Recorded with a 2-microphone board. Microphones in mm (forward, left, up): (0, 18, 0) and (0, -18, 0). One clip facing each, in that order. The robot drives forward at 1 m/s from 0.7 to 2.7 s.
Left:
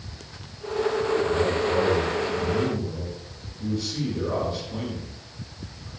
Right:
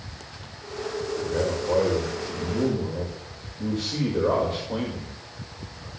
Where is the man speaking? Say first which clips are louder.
Left 3 dB; 85° right, 5.5 m; by 5.9 s 75° right (ahead or behind), 5.5 m.